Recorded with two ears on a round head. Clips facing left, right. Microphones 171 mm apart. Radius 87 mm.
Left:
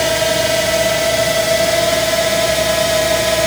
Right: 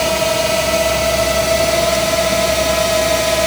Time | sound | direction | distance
0.0 | a drone | 10° left (ahead or behind) | ?